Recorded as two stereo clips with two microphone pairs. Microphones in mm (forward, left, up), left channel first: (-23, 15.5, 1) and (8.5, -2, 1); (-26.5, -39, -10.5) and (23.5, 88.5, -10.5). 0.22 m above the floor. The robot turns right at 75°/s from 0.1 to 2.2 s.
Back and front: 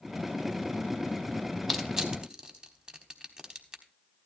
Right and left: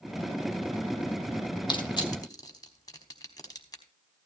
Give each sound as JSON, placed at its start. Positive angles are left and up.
{"t": 1.7, "sound": "crushing", "azimuth_deg": -115, "distance_m": 1.1}